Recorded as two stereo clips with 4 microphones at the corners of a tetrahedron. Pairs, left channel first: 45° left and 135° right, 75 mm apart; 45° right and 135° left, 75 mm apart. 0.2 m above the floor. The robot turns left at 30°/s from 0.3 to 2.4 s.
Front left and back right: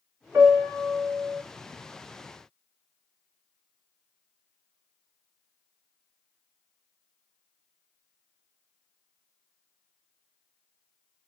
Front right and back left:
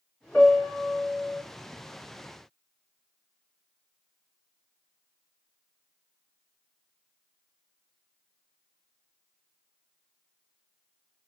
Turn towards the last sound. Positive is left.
turn(degrees=-160)